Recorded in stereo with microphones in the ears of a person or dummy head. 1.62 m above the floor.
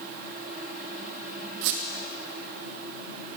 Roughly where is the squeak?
Right.